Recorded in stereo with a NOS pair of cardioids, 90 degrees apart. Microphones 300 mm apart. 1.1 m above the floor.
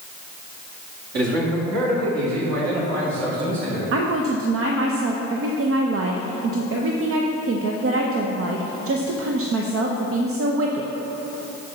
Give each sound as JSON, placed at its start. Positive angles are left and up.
{"t": 1.1, "sound": "a man speaking", "azimuth_deg": -60, "distance_m": 2.5}
{"t": 3.9, "sound": "a woman speaking", "azimuth_deg": -50, "distance_m": 0.7}